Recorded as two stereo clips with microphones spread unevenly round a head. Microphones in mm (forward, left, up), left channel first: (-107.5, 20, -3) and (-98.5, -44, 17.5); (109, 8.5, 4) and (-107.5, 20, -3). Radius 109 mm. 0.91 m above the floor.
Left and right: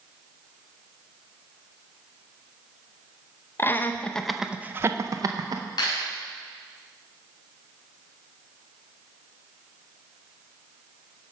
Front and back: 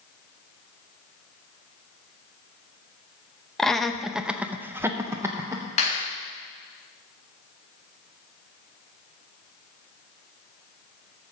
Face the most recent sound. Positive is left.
turn(degrees=60)